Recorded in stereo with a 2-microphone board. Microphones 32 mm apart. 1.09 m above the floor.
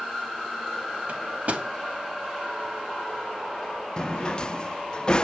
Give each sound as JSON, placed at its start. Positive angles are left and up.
{"t": 1.1, "sound": "a microwave", "side_deg": -60, "distance_m": 2.5}
{"t": 4.0, "sound": "a drawer", "side_deg": 30, "distance_m": 0.5}